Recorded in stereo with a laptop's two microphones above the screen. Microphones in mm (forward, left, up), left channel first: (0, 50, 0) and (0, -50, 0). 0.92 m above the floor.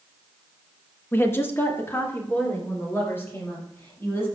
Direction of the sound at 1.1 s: 20° left (ahead or behind).